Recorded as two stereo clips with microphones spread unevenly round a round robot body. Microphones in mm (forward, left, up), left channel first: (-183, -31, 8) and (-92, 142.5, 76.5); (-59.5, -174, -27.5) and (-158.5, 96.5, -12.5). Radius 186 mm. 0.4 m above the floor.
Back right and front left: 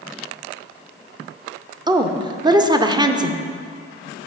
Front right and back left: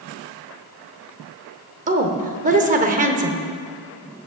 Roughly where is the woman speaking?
Behind left.